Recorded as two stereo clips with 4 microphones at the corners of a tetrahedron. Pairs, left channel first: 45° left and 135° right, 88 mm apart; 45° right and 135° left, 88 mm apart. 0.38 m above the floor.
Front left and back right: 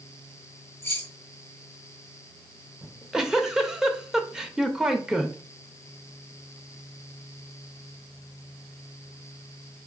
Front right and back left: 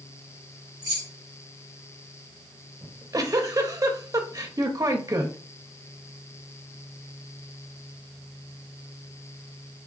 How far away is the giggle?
About 0.6 m.